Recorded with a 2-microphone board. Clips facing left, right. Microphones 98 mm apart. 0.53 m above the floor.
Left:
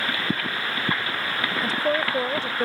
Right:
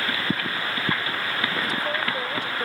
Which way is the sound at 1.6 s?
35° left (ahead or behind).